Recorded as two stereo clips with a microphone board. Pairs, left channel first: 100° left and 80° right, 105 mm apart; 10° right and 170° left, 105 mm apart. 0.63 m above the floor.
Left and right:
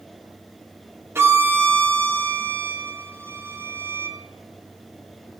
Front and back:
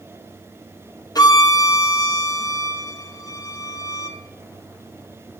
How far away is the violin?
About 0.7 m.